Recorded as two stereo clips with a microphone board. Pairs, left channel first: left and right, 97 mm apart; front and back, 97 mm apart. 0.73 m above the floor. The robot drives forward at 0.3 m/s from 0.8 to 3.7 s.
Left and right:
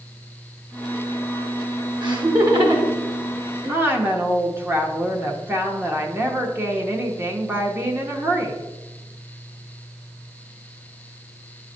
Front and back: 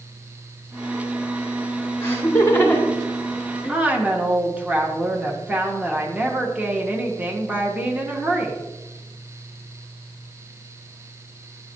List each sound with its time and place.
2.0 s laughter: 60° right, 2 m; by 3.8 s 75° right, 1.9 m
3.7 s a woman speaking: 125° right, 1.0 m